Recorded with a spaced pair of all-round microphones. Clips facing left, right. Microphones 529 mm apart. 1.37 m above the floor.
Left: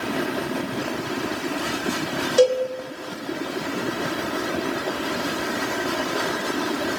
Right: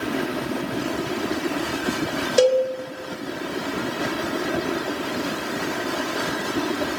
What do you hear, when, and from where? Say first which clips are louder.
2.4 s a cowbell: even; 50° right (ahead or behind), 0.6 m